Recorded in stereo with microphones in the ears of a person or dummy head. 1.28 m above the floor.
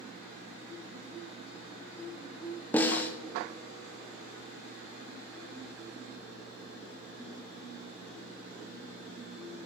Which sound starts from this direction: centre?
A snare drum, at 2.7 s.